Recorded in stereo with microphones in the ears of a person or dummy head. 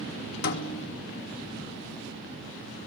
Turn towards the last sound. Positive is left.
turn(degrees=60)  # may be behind; listen again after turning